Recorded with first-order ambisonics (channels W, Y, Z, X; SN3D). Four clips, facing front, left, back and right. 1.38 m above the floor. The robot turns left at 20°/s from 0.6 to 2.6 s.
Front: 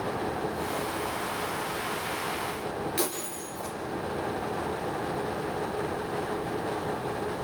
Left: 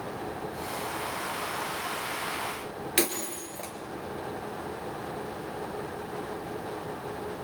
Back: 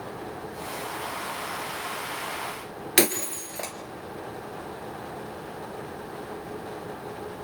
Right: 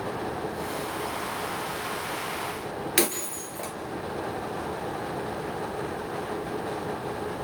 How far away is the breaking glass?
About 2.5 m.